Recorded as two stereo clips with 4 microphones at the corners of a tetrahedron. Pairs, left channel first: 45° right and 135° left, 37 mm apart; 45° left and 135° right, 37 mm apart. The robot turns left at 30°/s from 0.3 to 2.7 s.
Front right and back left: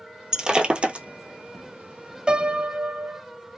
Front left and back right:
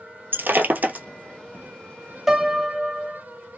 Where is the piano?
145° left, 0.6 m; by 3.2 s 130° left, 0.6 m.